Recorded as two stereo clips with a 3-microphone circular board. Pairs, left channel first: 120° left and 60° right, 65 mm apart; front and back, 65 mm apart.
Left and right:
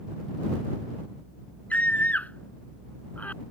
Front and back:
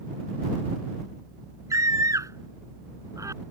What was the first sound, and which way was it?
A scream, straight behind.